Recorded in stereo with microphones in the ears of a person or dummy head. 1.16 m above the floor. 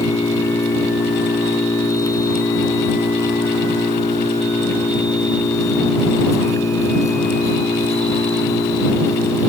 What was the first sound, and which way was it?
An engine running, 20° left (ahead or behind).